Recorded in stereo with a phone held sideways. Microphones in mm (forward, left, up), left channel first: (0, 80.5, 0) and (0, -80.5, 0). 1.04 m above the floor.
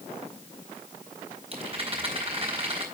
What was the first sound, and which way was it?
A rattle, 40° right (ahead or behind).